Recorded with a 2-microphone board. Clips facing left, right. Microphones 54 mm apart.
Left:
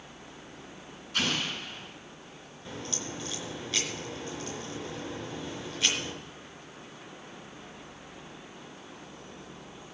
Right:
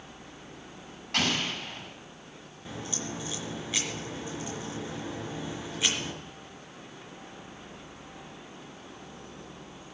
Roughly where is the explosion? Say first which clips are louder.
Right 2 dB; right.